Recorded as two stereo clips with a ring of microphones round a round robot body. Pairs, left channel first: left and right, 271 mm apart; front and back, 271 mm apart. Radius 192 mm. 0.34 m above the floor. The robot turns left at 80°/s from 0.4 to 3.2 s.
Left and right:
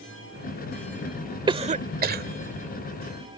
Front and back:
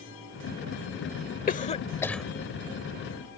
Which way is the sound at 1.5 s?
30° right.